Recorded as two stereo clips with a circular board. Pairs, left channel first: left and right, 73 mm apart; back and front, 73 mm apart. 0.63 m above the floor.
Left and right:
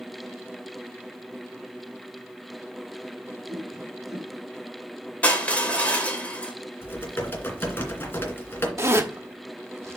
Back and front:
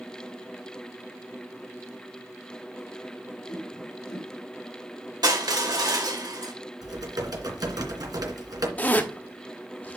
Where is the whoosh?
165° right, 2.5 m.